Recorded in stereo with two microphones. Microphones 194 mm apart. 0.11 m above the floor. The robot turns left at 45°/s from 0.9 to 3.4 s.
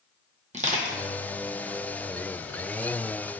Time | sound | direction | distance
0.5 | crushing | 35° right (ahead or behind) | 0.6 m